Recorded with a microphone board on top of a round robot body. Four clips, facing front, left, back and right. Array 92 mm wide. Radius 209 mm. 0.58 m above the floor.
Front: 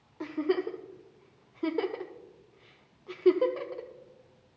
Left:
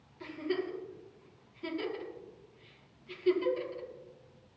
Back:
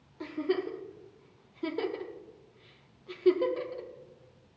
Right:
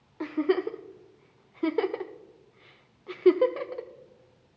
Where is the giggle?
70° right, 0.7 m.